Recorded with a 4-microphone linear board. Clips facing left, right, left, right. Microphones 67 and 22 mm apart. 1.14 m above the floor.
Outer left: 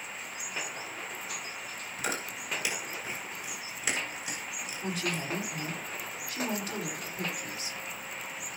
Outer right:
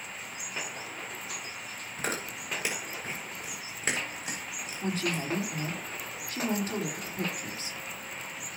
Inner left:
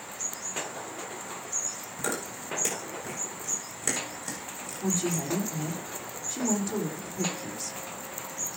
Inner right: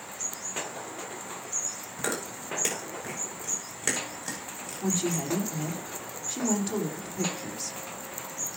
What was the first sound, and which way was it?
Chewing, 40° right (ahead or behind).